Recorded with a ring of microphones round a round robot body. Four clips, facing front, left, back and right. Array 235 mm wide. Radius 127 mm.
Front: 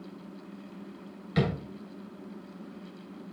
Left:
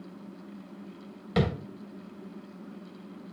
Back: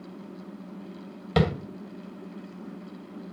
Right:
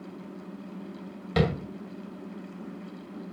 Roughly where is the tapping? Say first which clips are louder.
Right 2 dB, back 4 dB; behind.